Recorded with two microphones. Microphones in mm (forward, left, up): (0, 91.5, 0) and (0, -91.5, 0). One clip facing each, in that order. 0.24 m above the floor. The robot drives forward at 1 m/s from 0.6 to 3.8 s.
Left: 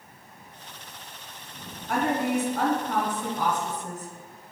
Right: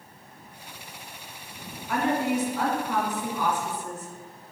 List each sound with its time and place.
1.9 s a woman speaking: 50° left (ahead or behind), 1.8 m; by 4.1 s 40° left (ahead or behind), 2 m